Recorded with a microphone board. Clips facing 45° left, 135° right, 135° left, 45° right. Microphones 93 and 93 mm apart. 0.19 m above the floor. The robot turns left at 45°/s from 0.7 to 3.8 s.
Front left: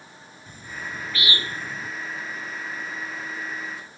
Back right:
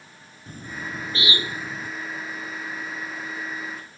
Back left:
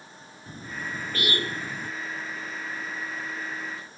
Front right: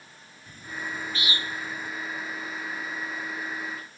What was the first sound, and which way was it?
A bird, 175° right.